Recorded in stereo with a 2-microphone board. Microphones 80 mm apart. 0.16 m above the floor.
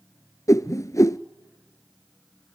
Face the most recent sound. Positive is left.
turn(degrees=45)  # may be behind; listen again after turning